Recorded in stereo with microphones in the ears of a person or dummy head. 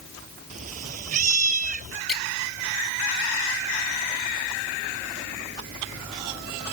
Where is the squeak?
5° left (ahead or behind).